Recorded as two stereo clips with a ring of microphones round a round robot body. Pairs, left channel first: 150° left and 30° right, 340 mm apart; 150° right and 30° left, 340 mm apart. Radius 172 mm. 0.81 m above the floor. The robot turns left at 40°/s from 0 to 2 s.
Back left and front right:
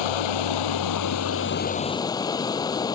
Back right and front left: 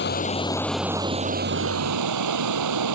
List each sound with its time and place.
0.0 s running water: 150° left; by 3.0 s 70° left